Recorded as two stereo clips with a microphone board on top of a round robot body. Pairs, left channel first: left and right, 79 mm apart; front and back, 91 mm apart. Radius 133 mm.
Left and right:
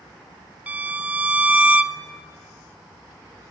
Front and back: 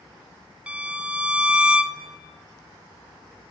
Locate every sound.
0.7 s a violin: 125° right, 0.9 m